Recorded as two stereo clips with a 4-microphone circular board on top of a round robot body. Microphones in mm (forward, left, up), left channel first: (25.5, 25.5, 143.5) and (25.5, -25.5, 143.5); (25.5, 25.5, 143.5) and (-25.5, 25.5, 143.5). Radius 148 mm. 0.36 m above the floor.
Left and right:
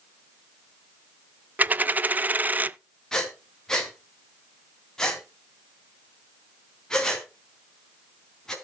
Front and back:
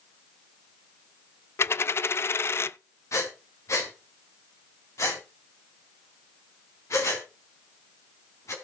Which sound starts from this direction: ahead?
Breathing, at 3.1 s.